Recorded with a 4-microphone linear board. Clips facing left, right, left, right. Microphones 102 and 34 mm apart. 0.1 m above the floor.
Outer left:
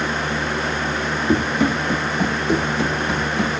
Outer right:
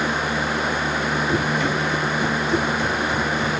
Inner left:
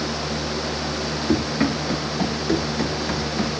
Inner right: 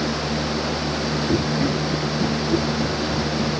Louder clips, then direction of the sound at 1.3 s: Outer left 7 dB, inner left 2 dB; 60° left (ahead or behind).